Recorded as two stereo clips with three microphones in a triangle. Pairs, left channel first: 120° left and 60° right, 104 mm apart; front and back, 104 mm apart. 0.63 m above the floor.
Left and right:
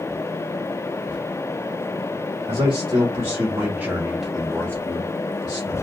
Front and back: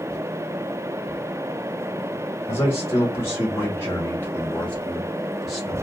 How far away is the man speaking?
About 1.3 m.